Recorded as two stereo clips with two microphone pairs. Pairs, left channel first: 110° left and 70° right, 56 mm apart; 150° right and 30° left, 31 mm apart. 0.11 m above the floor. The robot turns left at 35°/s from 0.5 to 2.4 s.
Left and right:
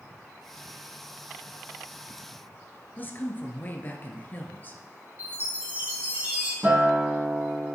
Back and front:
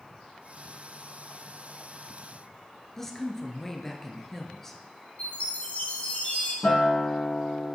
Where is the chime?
125° right, 3 m.